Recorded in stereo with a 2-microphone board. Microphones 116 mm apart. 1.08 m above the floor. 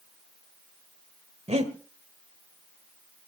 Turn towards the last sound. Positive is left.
turn(degrees=-70)  # may be behind; listen again after turning